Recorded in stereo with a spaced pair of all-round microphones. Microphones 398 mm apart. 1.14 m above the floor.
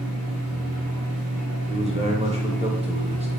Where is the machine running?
35° right (ahead or behind), 1.0 m.